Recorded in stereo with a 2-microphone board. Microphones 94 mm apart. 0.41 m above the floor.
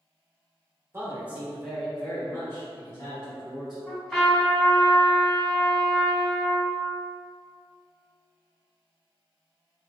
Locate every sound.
0.9 s a man speaking: 25° right (ahead or behind), 1.1 m; by 3.8 s 50° left (ahead or behind), 1.7 m
3.9 s a trumpet: 10° left (ahead or behind), 1.5 m